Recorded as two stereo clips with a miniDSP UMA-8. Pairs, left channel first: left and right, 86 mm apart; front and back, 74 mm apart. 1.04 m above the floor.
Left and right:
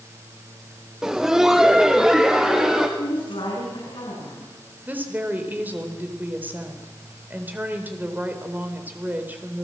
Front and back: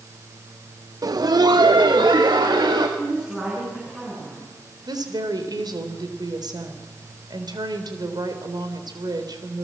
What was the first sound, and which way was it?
Laughter, 175° right.